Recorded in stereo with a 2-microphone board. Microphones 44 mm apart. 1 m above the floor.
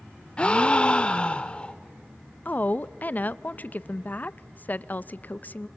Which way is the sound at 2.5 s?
40° left (ahead or behind).